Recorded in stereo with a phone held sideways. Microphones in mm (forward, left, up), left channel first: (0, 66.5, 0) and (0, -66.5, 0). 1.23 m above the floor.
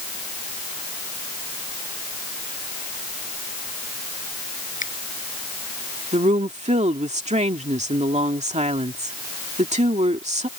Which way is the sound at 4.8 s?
75° left (ahead or behind).